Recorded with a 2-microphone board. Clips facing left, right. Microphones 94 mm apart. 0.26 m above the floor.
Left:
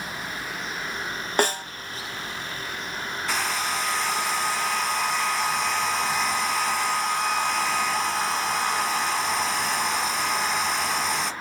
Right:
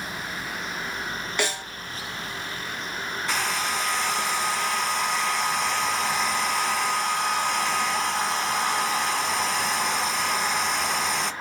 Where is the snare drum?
45° left (ahead or behind), 0.7 m.